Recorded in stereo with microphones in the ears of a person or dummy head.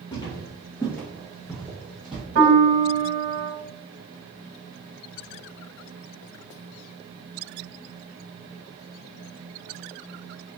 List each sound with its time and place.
0.1 s footsteps: 25° left (ahead or behind), 1.9 m; by 2.2 s centre (ahead or behind), 2.5 m
2.4 s a piano: 60° right (ahead or behind), 1.2 m